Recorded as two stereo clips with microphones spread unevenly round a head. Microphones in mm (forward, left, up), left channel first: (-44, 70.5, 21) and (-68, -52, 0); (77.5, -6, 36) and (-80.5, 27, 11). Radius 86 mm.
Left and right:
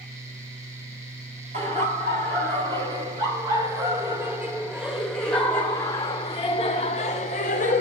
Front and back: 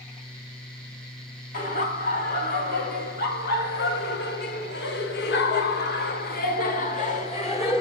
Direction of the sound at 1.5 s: 55° right.